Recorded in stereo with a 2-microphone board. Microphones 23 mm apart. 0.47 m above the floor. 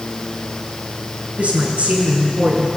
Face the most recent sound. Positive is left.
turn(degrees=-65)  # may be behind; listen again after turning